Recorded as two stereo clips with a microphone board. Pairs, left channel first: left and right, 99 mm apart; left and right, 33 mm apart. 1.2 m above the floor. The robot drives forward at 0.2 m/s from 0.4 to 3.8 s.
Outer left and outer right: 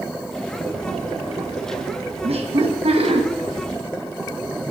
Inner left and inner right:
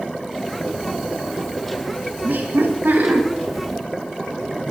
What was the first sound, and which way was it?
Laughter, 85° right.